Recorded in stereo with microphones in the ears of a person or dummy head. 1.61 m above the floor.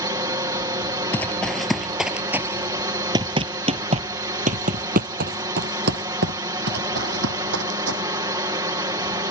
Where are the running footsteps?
10° left (ahead or behind); by 8.0 s 65° right (ahead or behind).